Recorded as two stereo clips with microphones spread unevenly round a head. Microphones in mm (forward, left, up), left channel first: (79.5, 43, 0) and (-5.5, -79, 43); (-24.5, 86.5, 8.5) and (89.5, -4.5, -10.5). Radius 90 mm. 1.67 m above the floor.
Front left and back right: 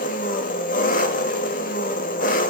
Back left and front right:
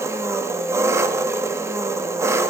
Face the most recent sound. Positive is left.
turn(degrees=35)